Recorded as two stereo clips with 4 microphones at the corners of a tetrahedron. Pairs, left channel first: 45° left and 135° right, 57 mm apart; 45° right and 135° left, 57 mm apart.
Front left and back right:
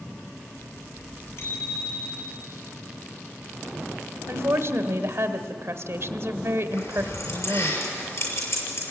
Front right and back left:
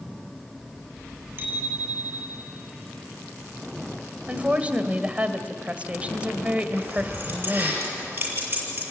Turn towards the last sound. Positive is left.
turn(degrees=75)